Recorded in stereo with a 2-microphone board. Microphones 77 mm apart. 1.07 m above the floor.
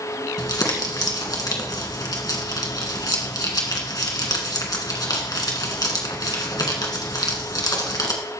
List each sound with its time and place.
0.4 s crumpling: 65° left (ahead or behind), 1.9 m